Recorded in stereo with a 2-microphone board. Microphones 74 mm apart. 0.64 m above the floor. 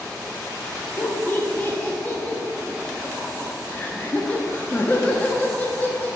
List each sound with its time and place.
1.0 s laughter: 20° left (ahead or behind), 0.6 m